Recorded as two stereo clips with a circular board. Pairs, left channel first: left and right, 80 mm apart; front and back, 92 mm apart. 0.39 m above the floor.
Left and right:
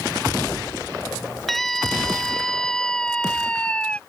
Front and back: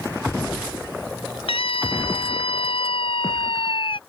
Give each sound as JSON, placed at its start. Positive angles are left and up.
{"t": 1.5, "sound": "a scream", "azimuth_deg": 5}